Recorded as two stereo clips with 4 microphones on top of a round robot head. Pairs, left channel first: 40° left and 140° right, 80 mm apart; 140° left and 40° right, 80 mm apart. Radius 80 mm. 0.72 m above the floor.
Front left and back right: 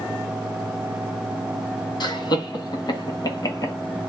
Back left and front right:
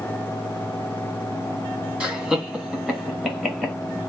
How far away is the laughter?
About 2 m.